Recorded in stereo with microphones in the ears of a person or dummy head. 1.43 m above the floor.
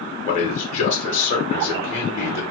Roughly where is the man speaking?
Left.